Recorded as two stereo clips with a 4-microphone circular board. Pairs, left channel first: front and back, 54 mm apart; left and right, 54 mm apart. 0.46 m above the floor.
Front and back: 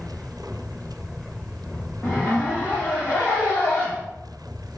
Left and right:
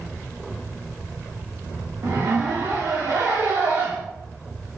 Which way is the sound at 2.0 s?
70° right.